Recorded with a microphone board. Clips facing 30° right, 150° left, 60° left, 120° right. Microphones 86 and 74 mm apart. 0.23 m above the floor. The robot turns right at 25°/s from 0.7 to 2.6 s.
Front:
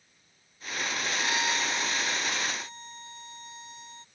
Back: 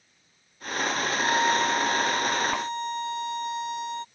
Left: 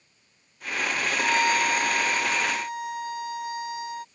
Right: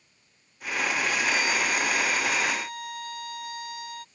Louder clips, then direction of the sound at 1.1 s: Back 8 dB, left 3 dB; 90° left.